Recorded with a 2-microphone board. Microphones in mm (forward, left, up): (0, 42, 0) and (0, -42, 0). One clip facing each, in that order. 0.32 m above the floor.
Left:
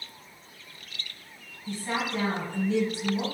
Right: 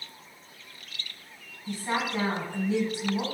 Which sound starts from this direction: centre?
A woman speaking, at 1.7 s.